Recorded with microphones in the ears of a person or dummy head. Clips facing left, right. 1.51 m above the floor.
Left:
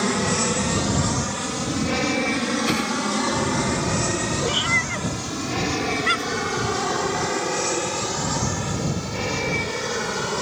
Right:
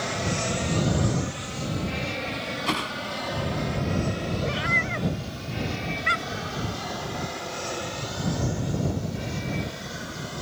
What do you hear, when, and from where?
0.0 s an aircraft: 60° left (ahead or behind); by 10.4 s 80° left
2.7 s a whoosh: 20° left (ahead or behind)
4.4 s a cat meowing: 40° left (ahead or behind)